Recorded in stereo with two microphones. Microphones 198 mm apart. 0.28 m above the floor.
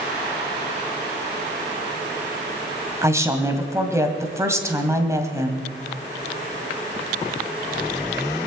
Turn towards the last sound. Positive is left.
turn(degrees=-15)  # may be behind; listen again after turning